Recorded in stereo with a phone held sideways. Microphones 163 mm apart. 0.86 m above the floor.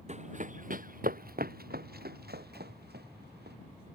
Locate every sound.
0.1 s running footsteps: 45° right (ahead or behind); by 3.5 s 80° right